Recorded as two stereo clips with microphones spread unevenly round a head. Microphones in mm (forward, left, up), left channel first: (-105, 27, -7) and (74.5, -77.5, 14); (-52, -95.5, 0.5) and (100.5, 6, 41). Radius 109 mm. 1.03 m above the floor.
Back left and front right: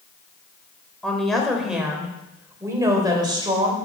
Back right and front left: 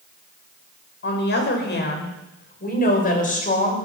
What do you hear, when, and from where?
1.0 s a woman speaking: 125° right, 4 m; by 3.8 s 95° right, 4.5 m